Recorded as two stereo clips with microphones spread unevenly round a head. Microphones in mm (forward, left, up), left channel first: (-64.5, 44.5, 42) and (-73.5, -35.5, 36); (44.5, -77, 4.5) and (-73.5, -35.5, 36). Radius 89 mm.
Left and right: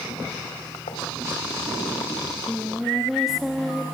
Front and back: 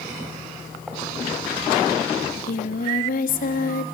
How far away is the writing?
About 3.5 m.